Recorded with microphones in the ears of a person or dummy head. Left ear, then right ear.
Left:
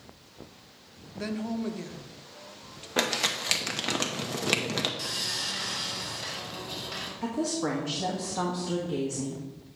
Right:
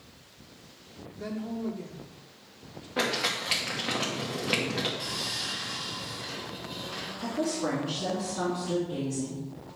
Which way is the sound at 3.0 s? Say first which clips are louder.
Left 1 dB; 70° left (ahead or behind).